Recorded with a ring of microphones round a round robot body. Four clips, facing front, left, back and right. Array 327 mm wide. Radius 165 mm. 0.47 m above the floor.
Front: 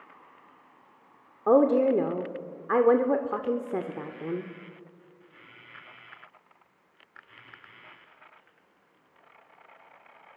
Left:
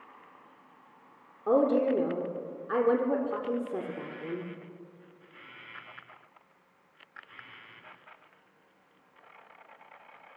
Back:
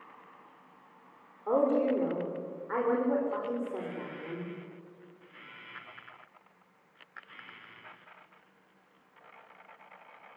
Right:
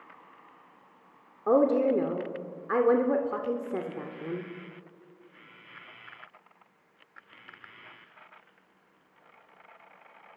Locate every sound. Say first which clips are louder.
1.5 s a woman speaking: right 2 dB, front 6 dB; 10° right, 1.5 m